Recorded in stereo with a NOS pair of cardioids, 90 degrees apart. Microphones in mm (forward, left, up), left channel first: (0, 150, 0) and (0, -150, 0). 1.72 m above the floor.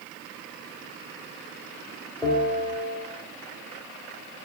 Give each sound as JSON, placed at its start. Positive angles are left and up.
{"t": 2.2, "sound": "a bell", "azimuth_deg": 10, "distance_m": 0.8}